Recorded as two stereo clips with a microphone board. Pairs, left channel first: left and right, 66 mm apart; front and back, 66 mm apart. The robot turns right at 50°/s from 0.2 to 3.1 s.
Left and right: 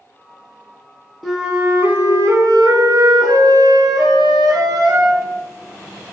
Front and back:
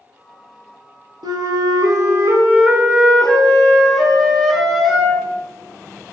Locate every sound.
1.2 s a flute: straight behind, 0.6 m; by 5.3 s 90° right, 0.6 m